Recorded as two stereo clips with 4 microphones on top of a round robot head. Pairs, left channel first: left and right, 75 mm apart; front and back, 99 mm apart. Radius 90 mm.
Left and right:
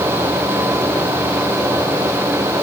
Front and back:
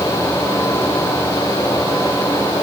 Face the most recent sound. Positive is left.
No sound to turn to.